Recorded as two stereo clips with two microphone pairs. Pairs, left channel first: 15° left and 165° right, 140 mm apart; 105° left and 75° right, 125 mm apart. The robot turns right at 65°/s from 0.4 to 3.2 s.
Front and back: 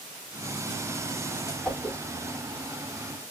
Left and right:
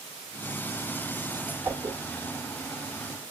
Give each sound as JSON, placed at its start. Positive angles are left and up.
{"t": 1.6, "sound": "a whoosh", "azimuth_deg": -70, "distance_m": 0.7}